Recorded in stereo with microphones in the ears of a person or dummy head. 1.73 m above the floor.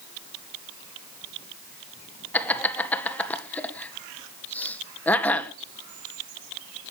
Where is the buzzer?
I don't hear a buzzer.